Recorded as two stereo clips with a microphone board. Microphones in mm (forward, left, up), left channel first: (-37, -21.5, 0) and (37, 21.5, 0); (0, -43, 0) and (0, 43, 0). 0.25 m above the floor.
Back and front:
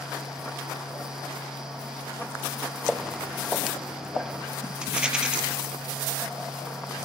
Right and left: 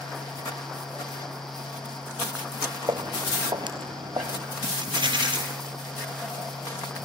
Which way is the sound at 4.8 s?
110° left.